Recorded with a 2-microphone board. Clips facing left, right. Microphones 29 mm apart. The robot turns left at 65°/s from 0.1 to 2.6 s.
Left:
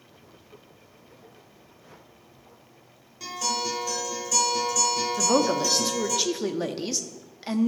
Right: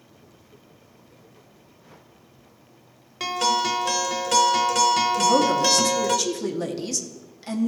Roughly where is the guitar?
Right.